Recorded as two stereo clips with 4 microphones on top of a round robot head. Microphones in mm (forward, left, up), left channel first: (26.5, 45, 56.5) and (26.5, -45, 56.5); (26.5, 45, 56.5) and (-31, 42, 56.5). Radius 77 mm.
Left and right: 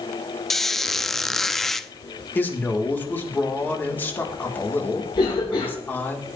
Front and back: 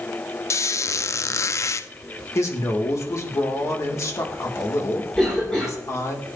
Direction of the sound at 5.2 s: 75° left.